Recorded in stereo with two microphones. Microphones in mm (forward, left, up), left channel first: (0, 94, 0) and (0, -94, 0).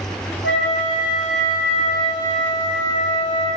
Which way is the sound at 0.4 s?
80° left.